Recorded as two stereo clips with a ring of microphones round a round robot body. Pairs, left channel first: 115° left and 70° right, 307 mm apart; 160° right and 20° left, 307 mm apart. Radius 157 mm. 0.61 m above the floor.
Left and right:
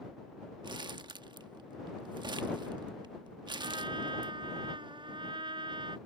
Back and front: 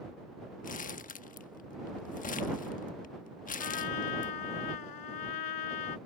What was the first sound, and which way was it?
Crumpling, 130° right.